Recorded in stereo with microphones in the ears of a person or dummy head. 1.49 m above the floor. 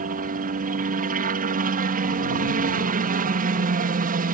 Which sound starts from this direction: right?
A helicopter, at 0.0 s.